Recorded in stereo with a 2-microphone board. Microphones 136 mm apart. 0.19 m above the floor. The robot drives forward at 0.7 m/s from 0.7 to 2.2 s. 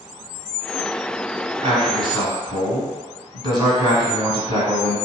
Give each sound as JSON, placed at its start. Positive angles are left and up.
{"t": 1.6, "sound": "a man speaking", "side_deg": -35, "distance_m": 1.5}